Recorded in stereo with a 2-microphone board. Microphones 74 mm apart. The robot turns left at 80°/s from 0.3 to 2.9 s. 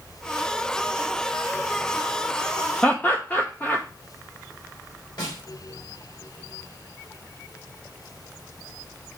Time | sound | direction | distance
2.8 | laughter | 20° left (ahead or behind) | 0.8 m
5.2 | a snare drum | 70° left (ahead or behind) | 3.5 m